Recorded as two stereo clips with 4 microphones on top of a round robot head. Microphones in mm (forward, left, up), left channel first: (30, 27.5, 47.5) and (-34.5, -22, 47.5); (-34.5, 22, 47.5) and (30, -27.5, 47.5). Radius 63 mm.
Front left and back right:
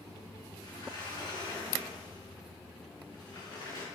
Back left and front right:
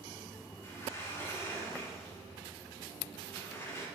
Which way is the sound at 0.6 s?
80° left.